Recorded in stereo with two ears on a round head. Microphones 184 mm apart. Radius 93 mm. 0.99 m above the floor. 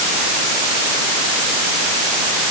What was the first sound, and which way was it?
Only background noise.